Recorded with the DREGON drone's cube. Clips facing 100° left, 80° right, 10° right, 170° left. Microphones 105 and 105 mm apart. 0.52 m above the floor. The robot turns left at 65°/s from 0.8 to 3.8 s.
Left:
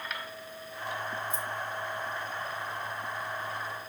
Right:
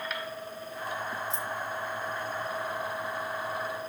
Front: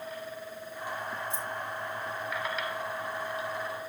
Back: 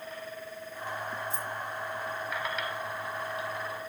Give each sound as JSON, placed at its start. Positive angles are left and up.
{"t": 1.3, "sound": "keys jangling", "azimuth_deg": -75, "distance_m": 4.5}